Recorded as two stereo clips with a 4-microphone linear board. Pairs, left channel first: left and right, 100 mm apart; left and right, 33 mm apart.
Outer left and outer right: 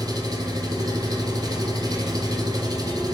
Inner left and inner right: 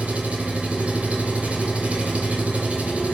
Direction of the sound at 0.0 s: 40° right (ahead or behind).